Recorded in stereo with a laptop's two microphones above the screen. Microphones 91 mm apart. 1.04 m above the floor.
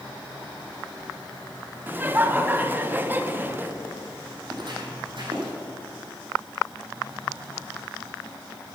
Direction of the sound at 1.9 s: 20° right (ahead or behind).